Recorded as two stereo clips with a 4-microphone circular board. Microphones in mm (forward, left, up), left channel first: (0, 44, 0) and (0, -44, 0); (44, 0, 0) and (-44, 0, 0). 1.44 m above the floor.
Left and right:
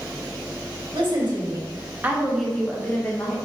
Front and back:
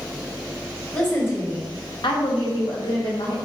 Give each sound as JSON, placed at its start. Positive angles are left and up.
{"t": 0.9, "sound": "a woman speaking", "azimuth_deg": -70, "distance_m": 1.2}